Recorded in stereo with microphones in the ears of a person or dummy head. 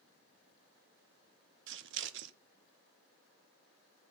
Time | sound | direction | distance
1.7 | scissors | 60° right (ahead or behind) | 1.0 m